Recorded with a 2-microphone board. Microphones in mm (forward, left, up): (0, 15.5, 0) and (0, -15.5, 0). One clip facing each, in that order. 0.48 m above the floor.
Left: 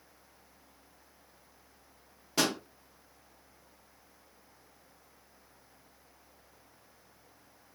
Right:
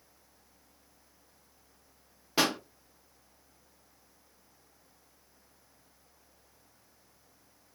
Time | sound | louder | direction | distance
2.4 | a pop | right 2 dB | 15° right (ahead or behind) | 0.7 m